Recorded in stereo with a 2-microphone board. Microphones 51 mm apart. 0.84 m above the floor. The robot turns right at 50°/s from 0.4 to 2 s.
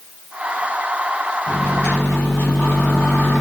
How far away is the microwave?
About 1.9 m.